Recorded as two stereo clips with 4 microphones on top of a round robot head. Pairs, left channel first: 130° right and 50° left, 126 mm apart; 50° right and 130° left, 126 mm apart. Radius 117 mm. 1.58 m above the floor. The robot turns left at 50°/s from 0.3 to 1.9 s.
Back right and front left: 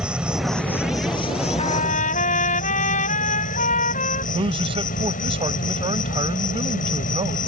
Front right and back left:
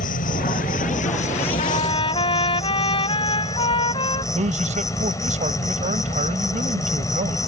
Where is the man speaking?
100° left.